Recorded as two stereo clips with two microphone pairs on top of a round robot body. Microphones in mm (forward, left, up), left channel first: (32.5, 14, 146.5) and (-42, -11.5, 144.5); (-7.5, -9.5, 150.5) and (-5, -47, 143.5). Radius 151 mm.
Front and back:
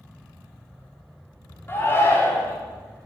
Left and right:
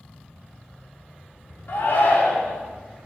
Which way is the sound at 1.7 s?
70° left.